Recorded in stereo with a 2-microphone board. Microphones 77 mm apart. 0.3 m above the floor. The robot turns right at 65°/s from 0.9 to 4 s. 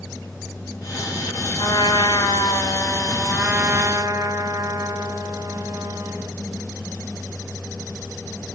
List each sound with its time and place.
1.6 s a trumpet: 65° left, 4 m; by 6.3 s 135° right, 4 m